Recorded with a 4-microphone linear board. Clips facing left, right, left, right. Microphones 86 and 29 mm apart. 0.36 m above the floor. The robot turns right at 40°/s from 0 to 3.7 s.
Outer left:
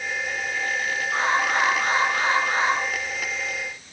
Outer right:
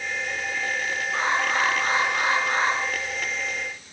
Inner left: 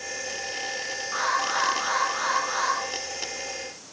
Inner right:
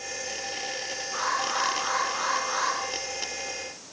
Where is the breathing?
No breathing in this recording.